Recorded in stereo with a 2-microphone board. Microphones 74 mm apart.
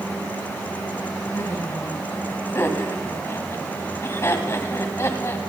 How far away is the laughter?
About 2 m.